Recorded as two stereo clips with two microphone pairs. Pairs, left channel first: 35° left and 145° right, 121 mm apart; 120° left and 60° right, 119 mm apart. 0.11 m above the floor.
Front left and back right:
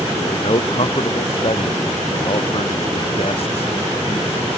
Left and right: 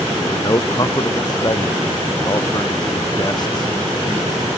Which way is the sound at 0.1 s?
70° left.